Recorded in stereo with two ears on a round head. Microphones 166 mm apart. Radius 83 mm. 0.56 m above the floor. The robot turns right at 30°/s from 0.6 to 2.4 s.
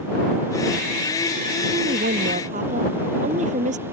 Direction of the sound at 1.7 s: 60° right (ahead or behind).